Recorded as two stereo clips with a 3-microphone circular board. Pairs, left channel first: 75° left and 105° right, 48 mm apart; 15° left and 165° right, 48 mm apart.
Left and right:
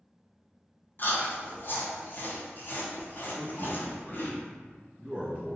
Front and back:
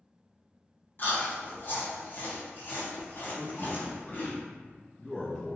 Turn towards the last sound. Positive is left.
turn(degrees=-60)